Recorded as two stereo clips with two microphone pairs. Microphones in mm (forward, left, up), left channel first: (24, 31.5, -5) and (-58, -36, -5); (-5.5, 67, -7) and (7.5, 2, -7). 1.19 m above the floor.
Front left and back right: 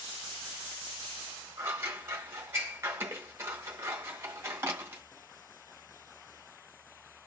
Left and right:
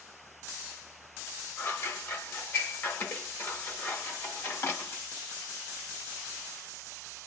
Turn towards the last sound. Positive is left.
turn(degrees=155)